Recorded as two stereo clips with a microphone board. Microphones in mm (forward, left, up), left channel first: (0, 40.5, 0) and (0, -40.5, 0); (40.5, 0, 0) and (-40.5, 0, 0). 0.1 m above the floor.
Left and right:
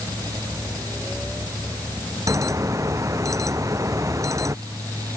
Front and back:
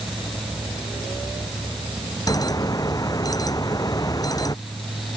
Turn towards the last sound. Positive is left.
turn(degrees=-40)